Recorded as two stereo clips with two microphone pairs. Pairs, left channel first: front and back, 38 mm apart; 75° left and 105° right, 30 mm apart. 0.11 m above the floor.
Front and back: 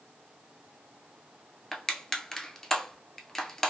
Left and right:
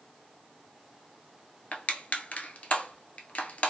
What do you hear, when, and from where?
1.7 s crushing: 70° left, 0.6 m